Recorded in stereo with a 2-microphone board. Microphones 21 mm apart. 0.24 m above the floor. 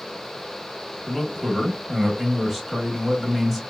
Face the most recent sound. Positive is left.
turn(degrees=-5)  # may be behind; listen again after turning